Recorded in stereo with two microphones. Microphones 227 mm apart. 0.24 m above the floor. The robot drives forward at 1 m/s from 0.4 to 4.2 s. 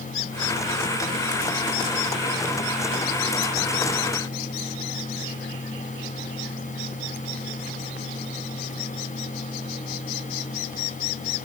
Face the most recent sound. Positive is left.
No sound to turn to.